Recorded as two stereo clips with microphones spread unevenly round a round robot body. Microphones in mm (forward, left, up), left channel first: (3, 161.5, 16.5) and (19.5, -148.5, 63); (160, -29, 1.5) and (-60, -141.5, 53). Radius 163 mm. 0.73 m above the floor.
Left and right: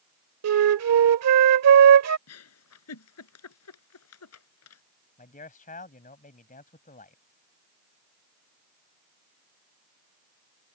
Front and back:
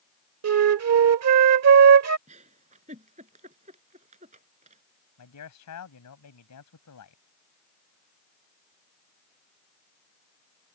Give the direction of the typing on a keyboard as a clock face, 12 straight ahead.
I don't hear typing on a keyboard.